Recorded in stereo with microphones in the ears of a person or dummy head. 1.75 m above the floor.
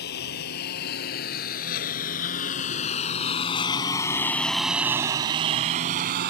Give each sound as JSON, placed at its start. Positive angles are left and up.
{"t": 0.0, "sound": "a lawn mower", "side_deg": 55}